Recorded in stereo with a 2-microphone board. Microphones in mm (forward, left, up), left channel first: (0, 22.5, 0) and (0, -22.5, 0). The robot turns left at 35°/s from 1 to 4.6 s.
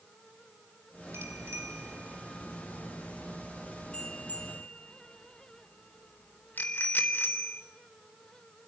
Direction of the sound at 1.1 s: 75° right (ahead or behind).